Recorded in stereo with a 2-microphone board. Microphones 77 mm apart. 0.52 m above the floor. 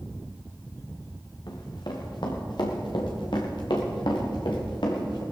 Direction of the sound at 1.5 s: 60° left (ahead or behind).